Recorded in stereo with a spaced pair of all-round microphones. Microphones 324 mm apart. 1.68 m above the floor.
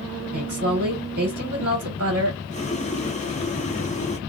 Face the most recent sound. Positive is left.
turn(degrees=20)  # may be behind; listen again after turning